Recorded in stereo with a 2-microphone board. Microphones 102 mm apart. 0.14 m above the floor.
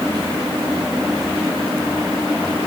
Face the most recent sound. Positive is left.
No sound to turn to.